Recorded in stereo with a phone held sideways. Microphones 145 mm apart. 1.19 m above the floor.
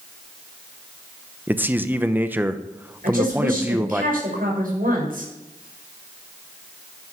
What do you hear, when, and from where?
1.5 s a man speaking: 15° right (ahead or behind), 0.8 m
3.0 s a woman speaking: 85° right, 5 m